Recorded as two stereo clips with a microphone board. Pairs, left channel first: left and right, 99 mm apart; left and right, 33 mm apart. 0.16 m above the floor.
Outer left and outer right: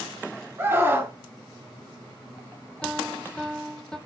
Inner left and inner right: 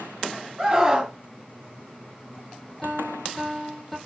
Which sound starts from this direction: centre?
A piano, at 2.8 s.